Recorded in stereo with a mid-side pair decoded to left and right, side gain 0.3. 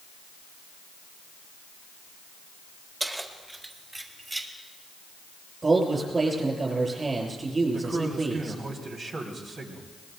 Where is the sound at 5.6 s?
45° right, 7.5 m.